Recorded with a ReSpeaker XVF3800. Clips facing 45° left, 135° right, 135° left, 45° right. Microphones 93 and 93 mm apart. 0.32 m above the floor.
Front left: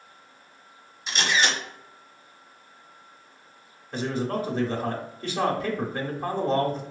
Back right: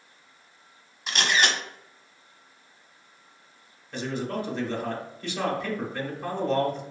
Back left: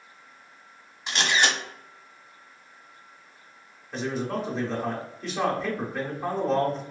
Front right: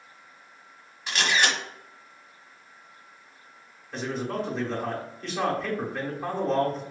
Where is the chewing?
No chewing in this recording.